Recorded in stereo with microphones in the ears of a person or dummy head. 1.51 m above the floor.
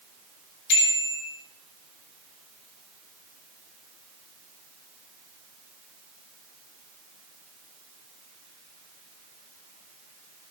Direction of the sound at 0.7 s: 60° left (ahead or behind).